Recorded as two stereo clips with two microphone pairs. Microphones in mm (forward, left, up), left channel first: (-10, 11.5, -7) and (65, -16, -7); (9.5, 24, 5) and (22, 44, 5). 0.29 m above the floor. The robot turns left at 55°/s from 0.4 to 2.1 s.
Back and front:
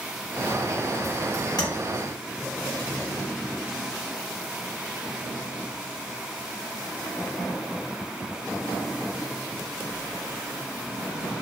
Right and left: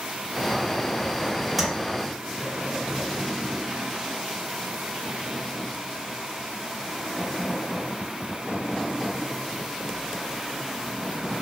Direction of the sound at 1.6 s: 145° left.